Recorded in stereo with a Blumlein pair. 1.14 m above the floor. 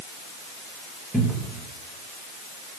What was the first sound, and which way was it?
A cupboard door, straight ahead.